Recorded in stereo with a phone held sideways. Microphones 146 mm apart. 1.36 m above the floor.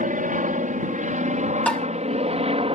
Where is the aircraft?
65° right (ahead or behind); by 2.8 s 40° right (ahead or behind).